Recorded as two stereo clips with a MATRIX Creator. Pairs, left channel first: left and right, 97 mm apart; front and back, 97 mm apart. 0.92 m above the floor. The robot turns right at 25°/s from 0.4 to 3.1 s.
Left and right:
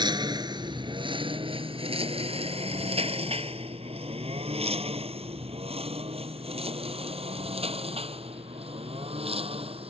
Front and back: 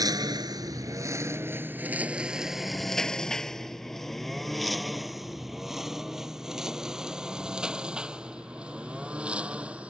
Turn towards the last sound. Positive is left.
turn(degrees=-105)